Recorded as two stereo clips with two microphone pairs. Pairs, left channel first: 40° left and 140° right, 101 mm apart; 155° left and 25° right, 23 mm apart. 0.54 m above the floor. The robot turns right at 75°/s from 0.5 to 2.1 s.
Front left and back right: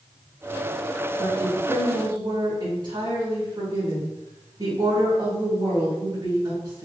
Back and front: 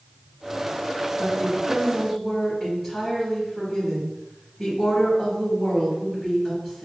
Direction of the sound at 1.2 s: Straight behind.